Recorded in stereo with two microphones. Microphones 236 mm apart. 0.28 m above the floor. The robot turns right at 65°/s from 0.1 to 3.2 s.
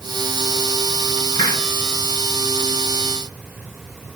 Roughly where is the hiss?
Left.